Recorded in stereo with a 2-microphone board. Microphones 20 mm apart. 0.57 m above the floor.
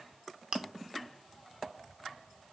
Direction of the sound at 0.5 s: 55° right (ahead or behind).